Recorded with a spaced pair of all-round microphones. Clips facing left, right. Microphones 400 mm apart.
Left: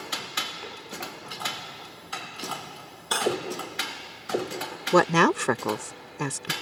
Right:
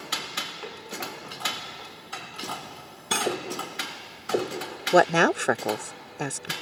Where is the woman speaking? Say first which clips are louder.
Even; 10° left (ahead or behind).